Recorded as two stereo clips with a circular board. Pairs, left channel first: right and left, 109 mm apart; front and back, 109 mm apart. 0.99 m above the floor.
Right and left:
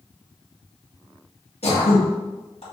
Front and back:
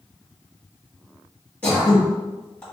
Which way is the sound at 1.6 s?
80° right.